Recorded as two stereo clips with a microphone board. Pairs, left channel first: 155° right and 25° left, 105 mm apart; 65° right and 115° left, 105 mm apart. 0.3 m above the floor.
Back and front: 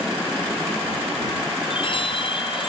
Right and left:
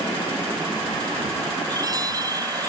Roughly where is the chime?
Behind.